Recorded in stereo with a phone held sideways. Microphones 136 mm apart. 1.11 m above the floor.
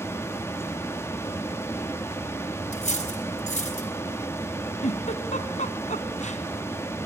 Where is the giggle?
60° left (ahead or behind), 2 m.